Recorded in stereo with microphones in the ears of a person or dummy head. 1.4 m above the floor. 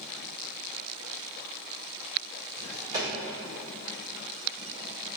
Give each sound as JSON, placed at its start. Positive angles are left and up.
{"t": 2.6, "sound": "a drawer", "side_deg": -20, "distance_m": 1.6}